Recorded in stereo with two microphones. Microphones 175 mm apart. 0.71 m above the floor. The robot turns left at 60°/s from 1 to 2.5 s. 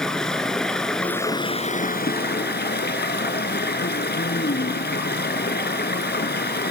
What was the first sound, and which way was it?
Running water, 175° left.